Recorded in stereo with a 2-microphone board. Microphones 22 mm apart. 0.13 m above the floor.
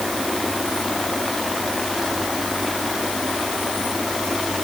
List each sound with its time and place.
Only background noise.